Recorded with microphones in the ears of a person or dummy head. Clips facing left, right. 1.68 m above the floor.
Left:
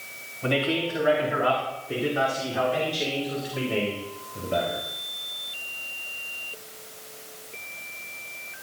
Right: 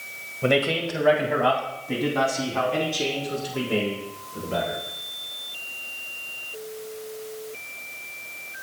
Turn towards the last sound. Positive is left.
turn(degrees=-70)  # may be behind; listen again after turning